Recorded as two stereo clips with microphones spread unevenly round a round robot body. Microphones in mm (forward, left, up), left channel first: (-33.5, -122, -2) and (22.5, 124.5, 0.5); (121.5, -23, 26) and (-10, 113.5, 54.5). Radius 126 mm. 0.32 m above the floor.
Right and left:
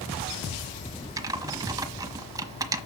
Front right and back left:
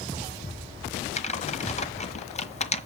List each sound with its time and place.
1.2 s typing on a keyboard: straight ahead, 1.3 m